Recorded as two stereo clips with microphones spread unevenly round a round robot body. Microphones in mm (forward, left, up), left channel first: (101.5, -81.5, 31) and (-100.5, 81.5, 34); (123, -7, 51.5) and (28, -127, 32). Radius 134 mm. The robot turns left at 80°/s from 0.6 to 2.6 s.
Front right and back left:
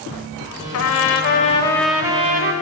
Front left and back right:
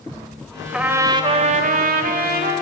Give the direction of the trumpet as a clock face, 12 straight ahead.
1 o'clock.